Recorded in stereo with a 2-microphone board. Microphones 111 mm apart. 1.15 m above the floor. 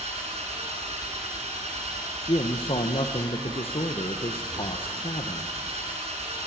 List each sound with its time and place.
0.0 s an engine running: 75° right (ahead or behind), 4 m
2.2 s a man speaking: 55° left (ahead or behind), 0.9 m